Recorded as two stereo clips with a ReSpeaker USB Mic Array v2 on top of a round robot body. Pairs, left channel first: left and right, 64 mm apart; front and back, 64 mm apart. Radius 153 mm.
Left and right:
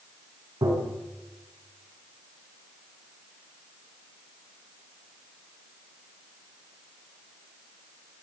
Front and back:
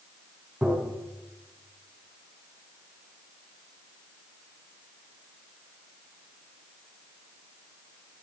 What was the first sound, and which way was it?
Tapping, 110° right.